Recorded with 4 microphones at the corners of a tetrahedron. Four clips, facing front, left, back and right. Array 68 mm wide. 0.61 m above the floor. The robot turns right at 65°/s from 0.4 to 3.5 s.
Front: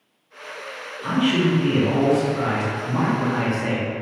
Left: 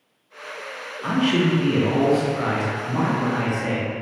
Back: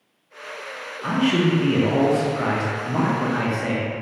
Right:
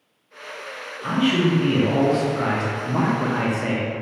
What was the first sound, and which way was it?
A man speaking, 125° left.